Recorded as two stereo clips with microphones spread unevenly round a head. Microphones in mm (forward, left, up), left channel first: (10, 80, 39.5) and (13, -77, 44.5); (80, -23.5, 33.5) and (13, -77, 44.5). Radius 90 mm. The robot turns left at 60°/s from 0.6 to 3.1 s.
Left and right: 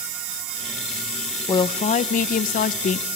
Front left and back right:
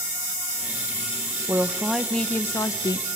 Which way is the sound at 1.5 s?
150° left.